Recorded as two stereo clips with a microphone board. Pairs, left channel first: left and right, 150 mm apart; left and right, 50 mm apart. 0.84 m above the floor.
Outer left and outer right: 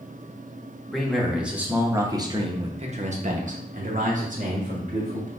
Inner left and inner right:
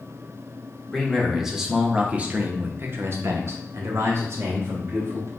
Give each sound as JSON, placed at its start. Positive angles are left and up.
{"t": 0.9, "sound": "a man speaking", "side_deg": 0, "distance_m": 1.2}